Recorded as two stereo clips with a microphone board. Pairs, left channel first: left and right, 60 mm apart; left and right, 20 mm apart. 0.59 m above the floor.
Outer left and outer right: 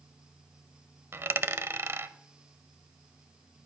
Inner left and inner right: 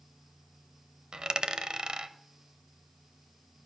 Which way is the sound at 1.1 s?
45° right (ahead or behind).